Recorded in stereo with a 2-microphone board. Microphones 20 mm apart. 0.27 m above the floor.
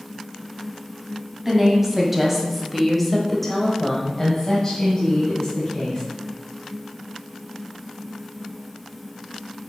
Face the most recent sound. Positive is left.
turn(degrees=20)  # may be behind; listen again after turning